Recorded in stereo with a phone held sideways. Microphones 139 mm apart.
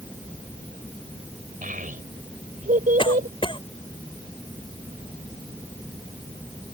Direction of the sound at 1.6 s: 75° right (ahead or behind).